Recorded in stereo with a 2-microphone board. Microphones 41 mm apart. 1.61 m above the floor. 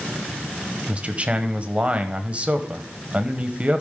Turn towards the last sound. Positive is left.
turn(degrees=-30)  # may be behind; listen again after turning